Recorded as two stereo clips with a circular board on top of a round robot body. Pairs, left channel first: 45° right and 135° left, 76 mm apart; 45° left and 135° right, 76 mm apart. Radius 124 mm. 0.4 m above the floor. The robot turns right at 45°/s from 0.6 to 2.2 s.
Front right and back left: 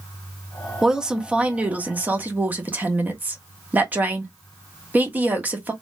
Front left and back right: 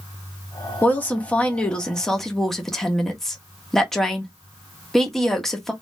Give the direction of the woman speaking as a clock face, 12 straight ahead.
10 o'clock.